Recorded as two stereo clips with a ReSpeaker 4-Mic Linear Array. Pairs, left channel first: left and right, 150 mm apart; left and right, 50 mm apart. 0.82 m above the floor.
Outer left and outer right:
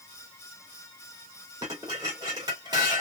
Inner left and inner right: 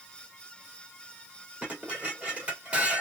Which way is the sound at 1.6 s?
25° right (ahead or behind).